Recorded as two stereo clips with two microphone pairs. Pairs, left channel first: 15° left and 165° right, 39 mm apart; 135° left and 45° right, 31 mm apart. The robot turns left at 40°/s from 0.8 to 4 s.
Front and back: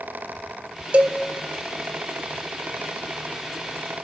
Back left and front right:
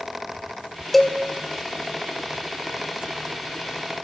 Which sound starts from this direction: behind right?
A cowbell, at 0.9 s.